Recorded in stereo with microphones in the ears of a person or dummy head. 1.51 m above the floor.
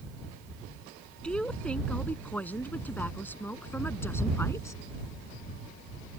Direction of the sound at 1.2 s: Centre (ahead or behind).